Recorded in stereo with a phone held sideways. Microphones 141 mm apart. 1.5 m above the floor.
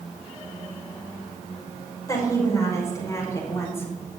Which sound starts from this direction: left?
A woman speaking, at 2.1 s.